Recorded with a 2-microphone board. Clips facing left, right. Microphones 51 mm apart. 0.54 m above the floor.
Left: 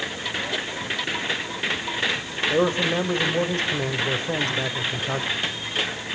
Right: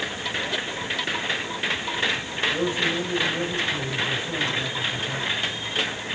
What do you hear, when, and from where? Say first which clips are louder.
2.5 s a man speaking: left 5 dB; 45° left (ahead or behind), 2.5 m